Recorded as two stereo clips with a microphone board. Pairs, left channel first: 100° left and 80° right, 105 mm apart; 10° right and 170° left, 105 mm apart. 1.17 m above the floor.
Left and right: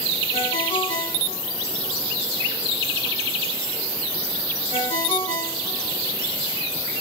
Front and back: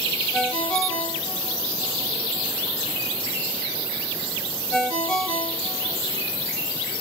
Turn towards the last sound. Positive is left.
turn(degrees=70)